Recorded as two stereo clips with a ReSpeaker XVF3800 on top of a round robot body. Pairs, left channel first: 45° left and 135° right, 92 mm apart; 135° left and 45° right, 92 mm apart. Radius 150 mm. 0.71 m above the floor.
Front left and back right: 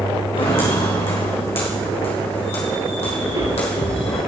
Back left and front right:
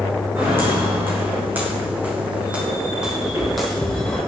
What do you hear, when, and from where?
0.3 s footsteps: 25° left, 3.5 m; by 4.2 s 55° left, 1.4 m
3.2 s footsteps: 105° right, 7 m